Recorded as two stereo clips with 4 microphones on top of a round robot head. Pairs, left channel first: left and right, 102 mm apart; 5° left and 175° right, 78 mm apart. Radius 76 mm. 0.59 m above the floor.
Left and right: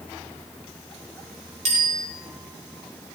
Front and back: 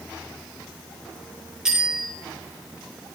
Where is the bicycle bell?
90° right, 7.5 m.